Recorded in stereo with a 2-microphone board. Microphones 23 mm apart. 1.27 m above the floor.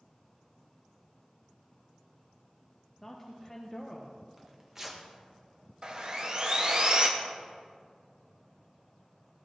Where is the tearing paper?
20° right (ahead or behind), 1.3 m.